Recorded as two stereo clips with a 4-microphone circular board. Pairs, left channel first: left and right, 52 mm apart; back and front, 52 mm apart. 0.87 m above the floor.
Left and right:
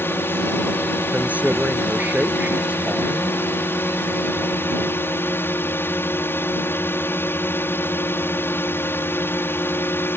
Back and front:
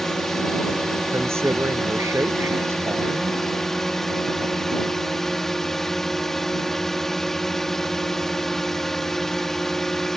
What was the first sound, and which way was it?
A drone, 100° left.